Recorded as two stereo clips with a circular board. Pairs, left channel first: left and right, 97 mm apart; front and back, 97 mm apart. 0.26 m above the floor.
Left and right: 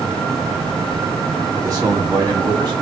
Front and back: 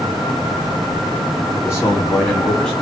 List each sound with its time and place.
1.6 s a man speaking: 50° right, 2.0 m; by 2.7 s 80° right, 1.9 m